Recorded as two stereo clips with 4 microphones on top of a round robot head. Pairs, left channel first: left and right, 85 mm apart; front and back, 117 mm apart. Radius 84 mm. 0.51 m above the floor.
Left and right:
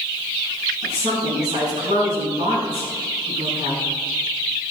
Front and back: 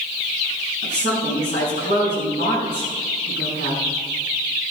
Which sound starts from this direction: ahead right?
A woman speaking, at 0.8 s.